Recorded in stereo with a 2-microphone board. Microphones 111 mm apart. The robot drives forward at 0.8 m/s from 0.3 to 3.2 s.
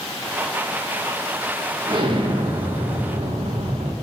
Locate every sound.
1.9 s an explosion: 45° right (ahead or behind), 2 m; by 3.9 s 75° right (ahead or behind), 1.6 m